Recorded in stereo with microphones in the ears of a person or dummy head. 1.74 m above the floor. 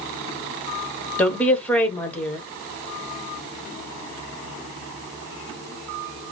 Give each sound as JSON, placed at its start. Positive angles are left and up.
{"t": 1.2, "sound": "a woman speaking", "side_deg": 10, "distance_m": 1.4}